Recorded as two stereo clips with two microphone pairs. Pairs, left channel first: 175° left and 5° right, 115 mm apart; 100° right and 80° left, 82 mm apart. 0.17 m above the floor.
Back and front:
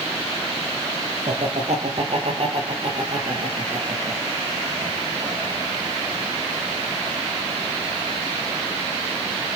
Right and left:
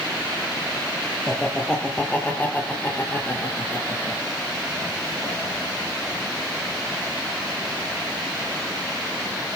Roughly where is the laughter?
Ahead.